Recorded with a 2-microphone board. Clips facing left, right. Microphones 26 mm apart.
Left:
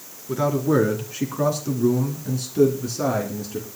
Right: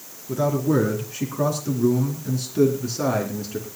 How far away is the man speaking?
About 3.5 m.